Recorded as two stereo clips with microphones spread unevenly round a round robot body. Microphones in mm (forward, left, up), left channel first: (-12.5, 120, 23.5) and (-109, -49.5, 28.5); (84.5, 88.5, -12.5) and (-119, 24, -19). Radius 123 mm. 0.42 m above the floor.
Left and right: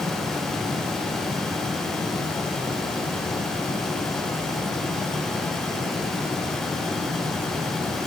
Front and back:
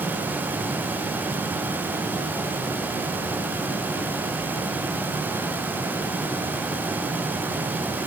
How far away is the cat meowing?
No cat meowing in this recording.